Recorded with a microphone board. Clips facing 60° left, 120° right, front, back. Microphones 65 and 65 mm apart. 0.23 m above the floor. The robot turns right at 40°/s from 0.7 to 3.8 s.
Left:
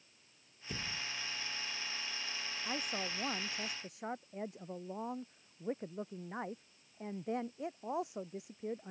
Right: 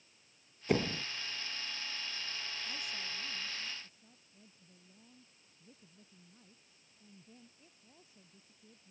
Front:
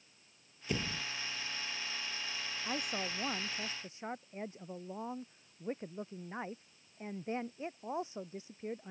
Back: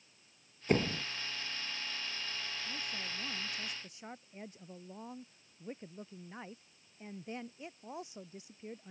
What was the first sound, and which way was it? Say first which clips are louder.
A door slam: right 11 dB, back 7 dB; 140° right.